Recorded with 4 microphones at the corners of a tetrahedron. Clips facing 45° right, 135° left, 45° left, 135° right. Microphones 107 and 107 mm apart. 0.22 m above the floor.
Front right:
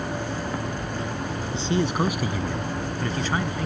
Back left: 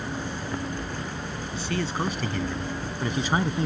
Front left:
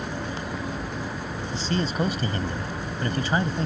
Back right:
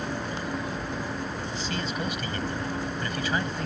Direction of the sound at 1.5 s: 5° left.